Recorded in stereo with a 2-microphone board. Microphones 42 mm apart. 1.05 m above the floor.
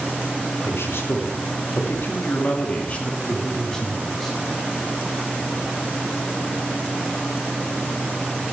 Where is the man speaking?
75° left (ahead or behind), 2.5 m; by 4.4 s 5° left (ahead or behind), 2.5 m.